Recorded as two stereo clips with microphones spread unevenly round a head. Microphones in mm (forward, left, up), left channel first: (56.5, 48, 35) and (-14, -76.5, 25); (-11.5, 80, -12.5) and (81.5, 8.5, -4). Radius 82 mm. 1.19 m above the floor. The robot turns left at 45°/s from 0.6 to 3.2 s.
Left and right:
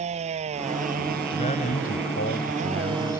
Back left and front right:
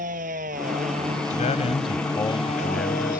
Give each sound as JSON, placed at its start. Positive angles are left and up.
{"t": 0.0, "sound": "a motorcycle", "azimuth_deg": -75}
{"t": 1.3, "sound": "a man speaking", "azimuth_deg": 120}